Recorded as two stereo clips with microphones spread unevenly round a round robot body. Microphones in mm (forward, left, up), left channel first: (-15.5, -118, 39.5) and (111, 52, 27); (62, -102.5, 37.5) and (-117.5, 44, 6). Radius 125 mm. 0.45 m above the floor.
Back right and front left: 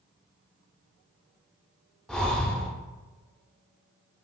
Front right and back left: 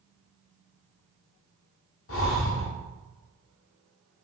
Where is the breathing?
40° right, 0.6 m.